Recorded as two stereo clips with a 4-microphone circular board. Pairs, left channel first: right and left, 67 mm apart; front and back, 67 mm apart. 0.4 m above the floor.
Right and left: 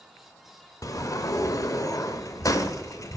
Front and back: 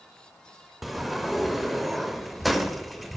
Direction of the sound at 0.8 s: 90° right.